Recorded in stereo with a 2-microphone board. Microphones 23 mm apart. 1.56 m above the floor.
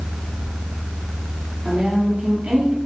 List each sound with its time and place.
1.6 s a woman speaking: 70° right (ahead or behind), 4 m; by 2.8 s 80° right, 3 m